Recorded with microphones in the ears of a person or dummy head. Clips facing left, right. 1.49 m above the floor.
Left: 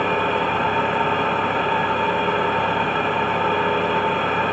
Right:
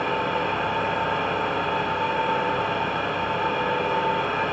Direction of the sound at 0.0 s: 60° left (ahead or behind).